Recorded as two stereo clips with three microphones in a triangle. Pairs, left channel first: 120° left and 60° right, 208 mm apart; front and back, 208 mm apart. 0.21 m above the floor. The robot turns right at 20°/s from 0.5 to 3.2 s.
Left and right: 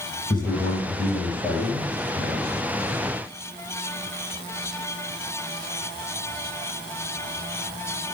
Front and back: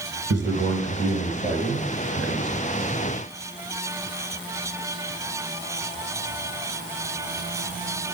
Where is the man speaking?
175° right, 2.5 m; by 2.5 s 135° right, 2.5 m.